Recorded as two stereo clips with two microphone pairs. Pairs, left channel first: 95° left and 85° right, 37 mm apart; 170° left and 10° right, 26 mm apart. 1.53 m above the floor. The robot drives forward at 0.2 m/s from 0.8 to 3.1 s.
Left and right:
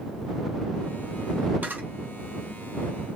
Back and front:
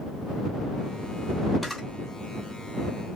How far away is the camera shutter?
About 1.0 m.